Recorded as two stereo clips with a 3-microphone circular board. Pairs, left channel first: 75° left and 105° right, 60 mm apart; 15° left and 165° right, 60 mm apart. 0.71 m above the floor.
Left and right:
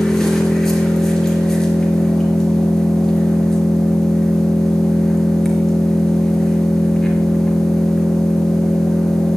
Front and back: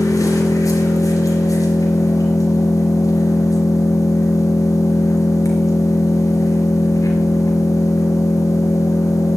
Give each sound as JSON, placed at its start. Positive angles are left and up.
{"t": 0.0, "sound": "an engine running", "azimuth_deg": -10, "distance_m": 4.5}